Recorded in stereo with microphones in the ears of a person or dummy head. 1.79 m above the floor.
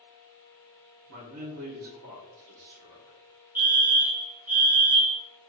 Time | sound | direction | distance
1.1 | a man speaking | 65° right (ahead or behind) | 1.3 m
3.5 | a fire alarm | 10° right (ahead or behind) | 1.0 m